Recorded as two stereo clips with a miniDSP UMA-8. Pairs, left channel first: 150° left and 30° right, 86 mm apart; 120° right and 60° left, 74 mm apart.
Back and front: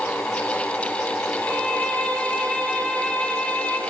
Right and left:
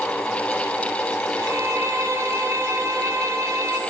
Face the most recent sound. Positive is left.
turn(degrees=80)